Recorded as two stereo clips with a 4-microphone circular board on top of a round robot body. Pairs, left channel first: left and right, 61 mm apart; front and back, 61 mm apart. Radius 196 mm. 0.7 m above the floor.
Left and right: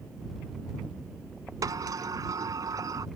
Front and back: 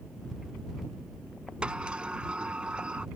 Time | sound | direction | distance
1.6 | a sliding door | 105° right | ?